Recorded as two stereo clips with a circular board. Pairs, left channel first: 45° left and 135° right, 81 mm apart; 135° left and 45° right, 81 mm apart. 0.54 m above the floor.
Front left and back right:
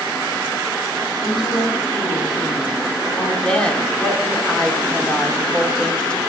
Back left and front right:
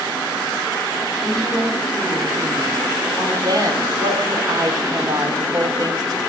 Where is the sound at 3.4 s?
30° right, 0.9 m.